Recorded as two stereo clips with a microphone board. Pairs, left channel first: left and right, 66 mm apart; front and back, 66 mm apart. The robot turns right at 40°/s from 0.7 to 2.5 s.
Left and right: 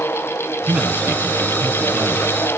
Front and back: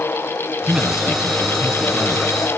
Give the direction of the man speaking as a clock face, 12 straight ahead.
4 o'clock.